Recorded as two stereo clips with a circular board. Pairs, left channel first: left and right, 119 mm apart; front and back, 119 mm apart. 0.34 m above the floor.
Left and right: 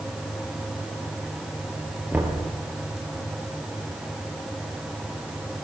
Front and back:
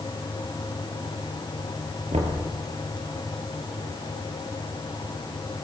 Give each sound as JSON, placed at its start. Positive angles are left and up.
{"t": 2.1, "sound": "knocking", "azimuth_deg": -165, "distance_m": 5.0}